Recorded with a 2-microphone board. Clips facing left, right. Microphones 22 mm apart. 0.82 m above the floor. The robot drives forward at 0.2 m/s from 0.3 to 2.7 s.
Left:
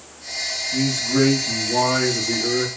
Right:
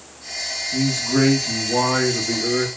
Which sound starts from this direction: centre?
A man speaking, at 0.7 s.